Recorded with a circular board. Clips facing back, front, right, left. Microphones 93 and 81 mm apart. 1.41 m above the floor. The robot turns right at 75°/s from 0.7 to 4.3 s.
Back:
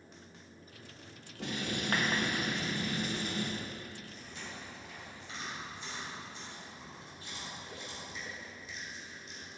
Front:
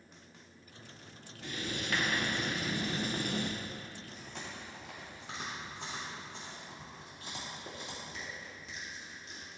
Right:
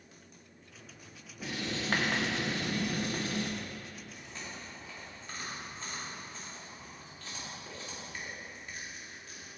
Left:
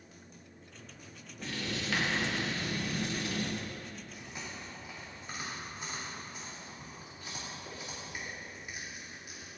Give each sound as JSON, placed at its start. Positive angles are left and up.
{"t": 1.4, "sound": "writing", "azimuth_deg": -175, "distance_m": 1.4}
{"t": 4.1, "sound": "chewing", "azimuth_deg": -5, "distance_m": 2.5}